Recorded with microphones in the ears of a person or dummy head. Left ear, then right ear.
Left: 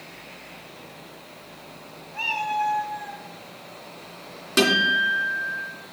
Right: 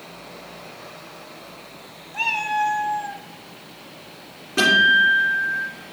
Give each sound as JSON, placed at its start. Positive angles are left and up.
{"t": 2.1, "sound": "a cat meowing", "side_deg": -20, "distance_m": 0.6}
{"t": 4.6, "sound": "a guitar", "side_deg": 65, "distance_m": 2.5}